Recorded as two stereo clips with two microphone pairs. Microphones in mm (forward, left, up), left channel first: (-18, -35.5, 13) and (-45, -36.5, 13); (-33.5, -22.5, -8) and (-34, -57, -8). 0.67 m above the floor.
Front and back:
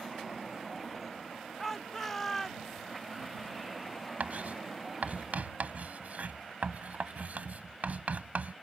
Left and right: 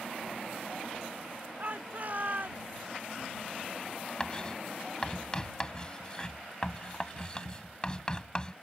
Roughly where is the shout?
Right.